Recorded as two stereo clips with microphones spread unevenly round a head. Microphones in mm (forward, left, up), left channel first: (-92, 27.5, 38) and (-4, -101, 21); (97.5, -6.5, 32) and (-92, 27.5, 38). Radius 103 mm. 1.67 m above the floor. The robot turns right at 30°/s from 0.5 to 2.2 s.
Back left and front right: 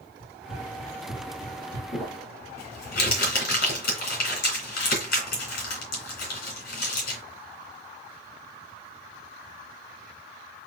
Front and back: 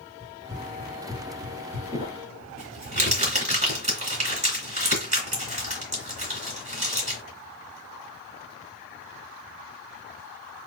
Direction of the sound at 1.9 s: 110° left.